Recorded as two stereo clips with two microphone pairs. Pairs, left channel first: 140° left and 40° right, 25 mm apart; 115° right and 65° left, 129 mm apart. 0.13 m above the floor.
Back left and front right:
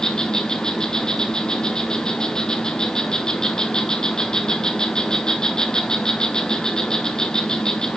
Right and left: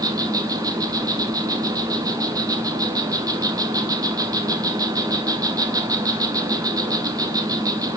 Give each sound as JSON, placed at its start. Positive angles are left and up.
{"t": 0.0, "sound": "an insect", "azimuth_deg": 110, "distance_m": 0.9}